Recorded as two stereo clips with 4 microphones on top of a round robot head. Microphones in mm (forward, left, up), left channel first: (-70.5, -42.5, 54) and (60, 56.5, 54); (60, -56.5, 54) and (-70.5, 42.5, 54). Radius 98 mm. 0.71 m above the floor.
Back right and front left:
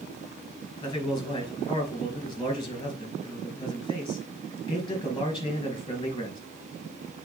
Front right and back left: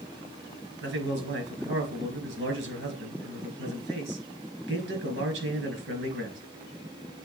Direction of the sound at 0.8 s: 150° left.